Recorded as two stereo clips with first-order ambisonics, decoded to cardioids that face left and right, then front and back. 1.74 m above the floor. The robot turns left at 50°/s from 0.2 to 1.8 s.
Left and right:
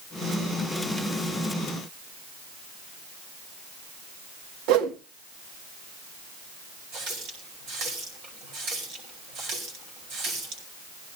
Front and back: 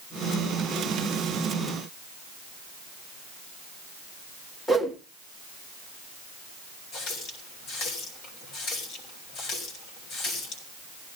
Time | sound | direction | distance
4.7 | a whoosh | 85° right | 1.5 m
6.9 | a running tap | 50° right | 5 m